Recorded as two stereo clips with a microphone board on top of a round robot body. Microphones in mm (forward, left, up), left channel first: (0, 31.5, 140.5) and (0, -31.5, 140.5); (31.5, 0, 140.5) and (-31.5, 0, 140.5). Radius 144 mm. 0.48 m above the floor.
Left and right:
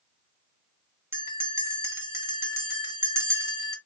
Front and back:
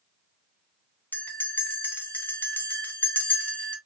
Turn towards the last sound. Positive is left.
turn(degrees=-50)